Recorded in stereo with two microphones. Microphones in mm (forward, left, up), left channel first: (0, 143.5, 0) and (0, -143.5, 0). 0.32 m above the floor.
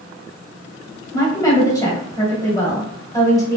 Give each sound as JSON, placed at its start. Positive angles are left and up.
{"t": 1.1, "sound": "a woman speaking", "side_deg": 10, "distance_m": 1.8}